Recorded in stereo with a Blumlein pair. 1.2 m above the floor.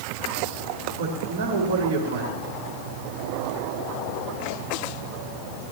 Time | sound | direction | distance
1.0 | a man speaking | 65° right | 5 m